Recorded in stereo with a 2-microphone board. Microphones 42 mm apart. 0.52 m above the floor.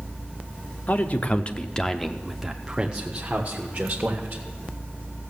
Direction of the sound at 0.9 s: 40° left (ahead or behind).